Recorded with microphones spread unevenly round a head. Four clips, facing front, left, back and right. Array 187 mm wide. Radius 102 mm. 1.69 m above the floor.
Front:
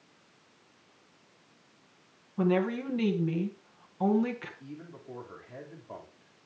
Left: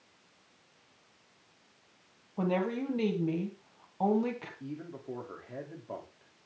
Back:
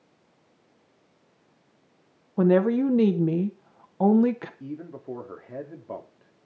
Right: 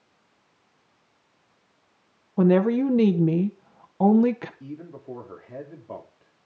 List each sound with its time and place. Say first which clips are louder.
2.4 s a woman speaking: right 12 dB, back 8 dB; 115° right, 1.6 m
4.6 s a man speaking: right 3 dB, back 8 dB; straight behind, 3 m